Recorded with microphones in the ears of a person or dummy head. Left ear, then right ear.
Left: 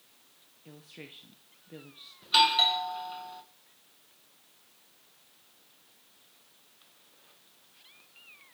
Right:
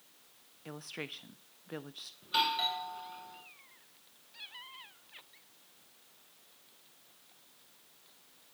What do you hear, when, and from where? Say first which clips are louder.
0.7 s a woman speaking: right 6 dB; 55° right (ahead or behind), 0.6 m
2.2 s a doorbell: left 8 dB; 30° left (ahead or behind), 1.9 m